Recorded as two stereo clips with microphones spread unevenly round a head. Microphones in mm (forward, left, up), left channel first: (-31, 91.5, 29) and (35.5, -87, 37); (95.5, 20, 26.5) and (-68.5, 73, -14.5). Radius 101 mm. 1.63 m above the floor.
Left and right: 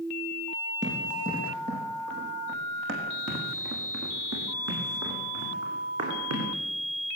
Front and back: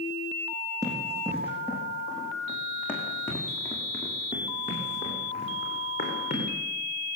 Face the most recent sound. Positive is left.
turn(degrees=-70)